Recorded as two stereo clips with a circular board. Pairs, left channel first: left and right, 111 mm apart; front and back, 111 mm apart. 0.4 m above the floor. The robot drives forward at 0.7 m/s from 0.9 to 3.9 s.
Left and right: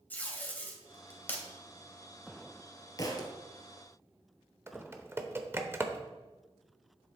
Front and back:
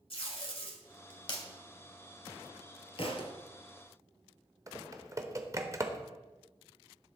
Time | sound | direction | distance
0.1 | tape being pulled | 20° left | 2 m
3.0 | a thud | 35° left | 1.6 m
4.7 | typing on a keyboard | 145° right | 0.9 m